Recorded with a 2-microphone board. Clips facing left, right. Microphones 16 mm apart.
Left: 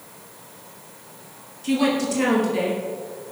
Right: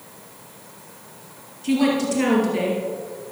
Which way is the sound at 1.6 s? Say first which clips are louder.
Right 1 dB; 5° right (ahead or behind).